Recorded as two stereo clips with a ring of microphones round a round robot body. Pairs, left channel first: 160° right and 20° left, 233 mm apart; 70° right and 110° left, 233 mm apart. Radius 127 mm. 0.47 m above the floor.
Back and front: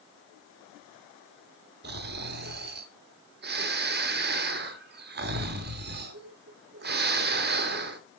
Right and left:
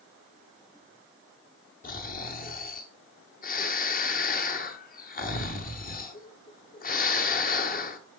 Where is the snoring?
20° right, 1.0 m.